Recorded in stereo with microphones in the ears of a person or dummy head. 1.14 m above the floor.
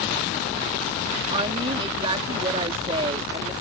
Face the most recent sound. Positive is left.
turn(degrees=-30)  # may be behind; listen again after turning